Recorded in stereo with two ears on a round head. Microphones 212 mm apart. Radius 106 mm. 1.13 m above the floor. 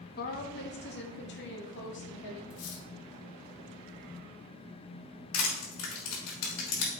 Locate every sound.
0.2 s a woman speaking: 40° left (ahead or behind), 1.2 m; by 2.4 s 50° left (ahead or behind), 3.5 m
2.5 s cutlery clinking: 60° left (ahead or behind), 1.7 m
5.3 s crushing: 85° left, 4.5 m